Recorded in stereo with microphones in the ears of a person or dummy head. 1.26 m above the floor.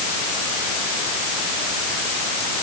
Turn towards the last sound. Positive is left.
No sound to turn to.